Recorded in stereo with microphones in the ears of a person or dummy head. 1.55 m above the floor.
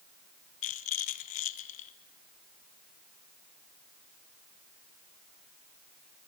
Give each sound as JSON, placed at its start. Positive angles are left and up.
{"t": 0.6, "sound": "a rattle", "side_deg": 40, "distance_m": 0.7}